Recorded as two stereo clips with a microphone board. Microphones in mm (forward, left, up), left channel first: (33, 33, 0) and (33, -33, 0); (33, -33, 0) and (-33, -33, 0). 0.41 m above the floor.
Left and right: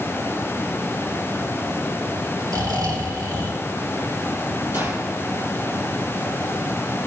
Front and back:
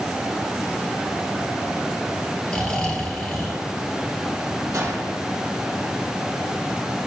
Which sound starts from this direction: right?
Snoring, at 2.5 s.